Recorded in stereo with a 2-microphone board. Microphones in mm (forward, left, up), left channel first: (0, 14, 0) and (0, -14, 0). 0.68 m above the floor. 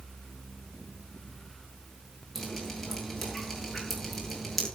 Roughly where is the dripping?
Centre.